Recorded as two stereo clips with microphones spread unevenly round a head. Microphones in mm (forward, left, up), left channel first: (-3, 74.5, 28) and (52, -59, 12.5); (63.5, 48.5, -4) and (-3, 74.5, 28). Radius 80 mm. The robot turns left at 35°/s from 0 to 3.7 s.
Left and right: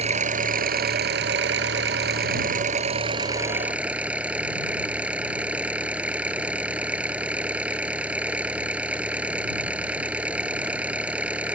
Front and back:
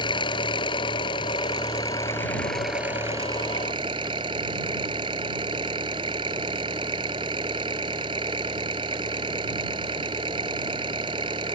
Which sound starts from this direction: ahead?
An engine running, at 0.0 s.